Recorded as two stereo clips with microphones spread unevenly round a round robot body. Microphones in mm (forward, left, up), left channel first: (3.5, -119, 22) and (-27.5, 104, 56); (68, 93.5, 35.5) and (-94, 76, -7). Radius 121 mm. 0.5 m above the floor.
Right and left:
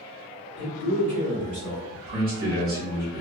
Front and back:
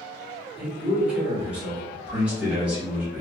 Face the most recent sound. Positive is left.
turn(degrees=130)